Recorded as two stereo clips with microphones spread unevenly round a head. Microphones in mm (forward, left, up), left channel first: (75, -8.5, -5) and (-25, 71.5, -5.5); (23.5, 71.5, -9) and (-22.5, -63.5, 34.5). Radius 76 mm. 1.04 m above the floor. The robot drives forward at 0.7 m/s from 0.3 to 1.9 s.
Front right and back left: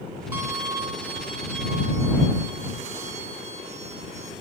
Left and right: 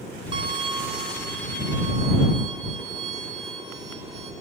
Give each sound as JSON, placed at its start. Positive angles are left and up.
{"t": 0.3, "sound": "a violin", "azimuth_deg": -145, "distance_m": 0.7}